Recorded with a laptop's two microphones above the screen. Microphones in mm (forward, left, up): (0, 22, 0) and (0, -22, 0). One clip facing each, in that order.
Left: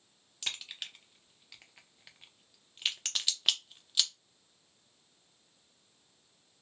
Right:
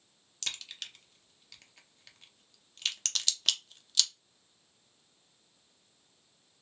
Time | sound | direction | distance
0.4 | a crack | 15° left (ahead or behind) | 0.7 m